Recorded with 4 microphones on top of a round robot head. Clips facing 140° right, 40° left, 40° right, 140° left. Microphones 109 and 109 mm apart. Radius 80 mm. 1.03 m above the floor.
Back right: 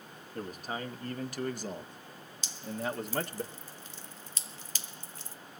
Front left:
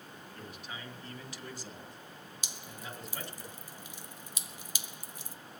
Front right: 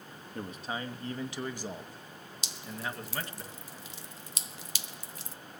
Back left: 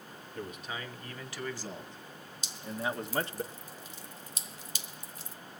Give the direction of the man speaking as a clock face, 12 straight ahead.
3 o'clock.